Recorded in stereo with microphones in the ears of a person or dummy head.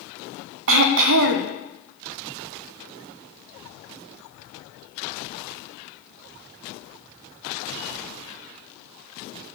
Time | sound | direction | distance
0.7 | throat clearing | 65° right (ahead or behind) | 0.8 m